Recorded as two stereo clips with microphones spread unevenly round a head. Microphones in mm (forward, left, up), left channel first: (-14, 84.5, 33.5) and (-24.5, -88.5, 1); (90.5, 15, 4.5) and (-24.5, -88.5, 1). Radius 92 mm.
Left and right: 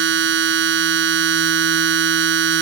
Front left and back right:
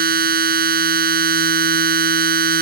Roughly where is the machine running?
Behind right.